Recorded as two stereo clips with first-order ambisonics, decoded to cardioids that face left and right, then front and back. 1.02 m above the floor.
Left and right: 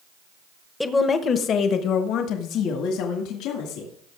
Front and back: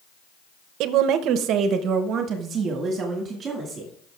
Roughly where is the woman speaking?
Behind.